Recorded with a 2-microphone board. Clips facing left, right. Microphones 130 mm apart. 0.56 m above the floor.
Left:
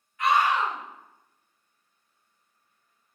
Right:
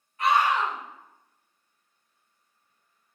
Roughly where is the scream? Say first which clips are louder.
Even; right.